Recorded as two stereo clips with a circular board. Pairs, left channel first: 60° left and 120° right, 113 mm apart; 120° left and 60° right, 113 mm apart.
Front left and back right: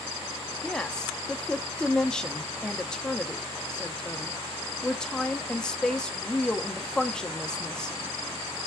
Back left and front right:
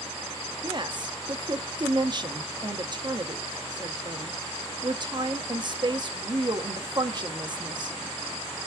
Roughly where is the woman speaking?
Ahead.